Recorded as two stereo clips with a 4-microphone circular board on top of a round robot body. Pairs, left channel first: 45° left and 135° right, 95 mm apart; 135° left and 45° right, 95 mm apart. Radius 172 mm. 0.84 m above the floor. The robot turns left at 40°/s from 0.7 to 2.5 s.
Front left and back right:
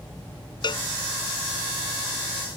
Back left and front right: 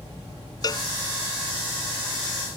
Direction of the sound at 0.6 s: 85° left.